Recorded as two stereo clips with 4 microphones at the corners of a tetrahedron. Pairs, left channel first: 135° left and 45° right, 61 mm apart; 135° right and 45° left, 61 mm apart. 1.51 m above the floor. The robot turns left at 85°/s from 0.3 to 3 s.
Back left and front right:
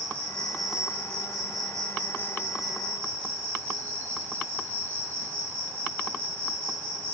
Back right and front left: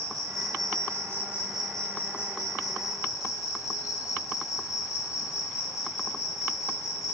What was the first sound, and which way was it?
An insect, 70° left.